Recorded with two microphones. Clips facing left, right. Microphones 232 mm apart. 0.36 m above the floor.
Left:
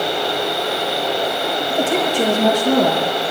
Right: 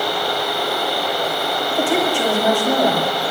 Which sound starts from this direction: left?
A woman speaking, at 1.7 s.